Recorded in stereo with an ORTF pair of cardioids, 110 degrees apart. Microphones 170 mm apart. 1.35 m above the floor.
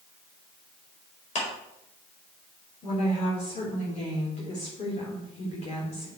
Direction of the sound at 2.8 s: 40° left.